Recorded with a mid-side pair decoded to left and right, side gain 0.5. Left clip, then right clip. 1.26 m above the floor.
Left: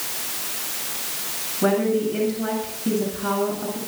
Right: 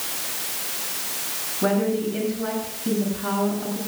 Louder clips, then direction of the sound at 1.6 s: Left 2 dB; 10° left.